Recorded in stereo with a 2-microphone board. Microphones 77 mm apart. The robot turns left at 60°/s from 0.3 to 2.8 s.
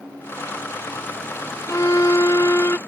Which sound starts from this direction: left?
A violin, at 1.7 s.